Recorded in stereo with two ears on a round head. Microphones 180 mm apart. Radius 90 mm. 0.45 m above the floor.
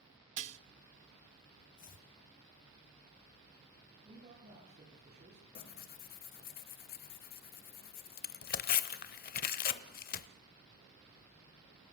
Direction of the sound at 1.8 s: 45° left (ahead or behind).